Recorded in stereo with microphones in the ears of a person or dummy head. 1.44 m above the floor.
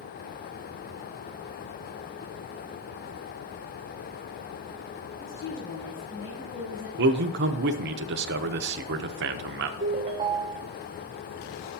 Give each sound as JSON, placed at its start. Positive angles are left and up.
{"t": 5.2, "sound": "a woman speaking", "side_deg": 15, "distance_m": 5.5}
{"t": 7.0, "sound": "a man speaking", "side_deg": -60, "distance_m": 0.8}
{"t": 9.8, "sound": "a ringtone", "side_deg": -30, "distance_m": 0.6}